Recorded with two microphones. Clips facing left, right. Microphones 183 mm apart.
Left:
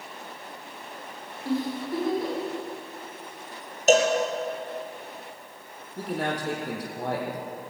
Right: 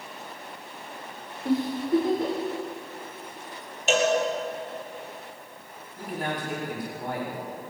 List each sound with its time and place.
1.4 s a giggle: 20° right (ahead or behind), 9.5 m
3.9 s a cowbell: 40° left (ahead or behind), 4 m
6.0 s a man speaking: 75° left (ahead or behind), 6 m